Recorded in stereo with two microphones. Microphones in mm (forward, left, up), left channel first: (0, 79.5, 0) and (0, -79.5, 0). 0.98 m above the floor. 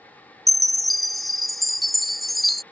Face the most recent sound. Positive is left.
turn(degrees=0)  # may be behind; listen again after turning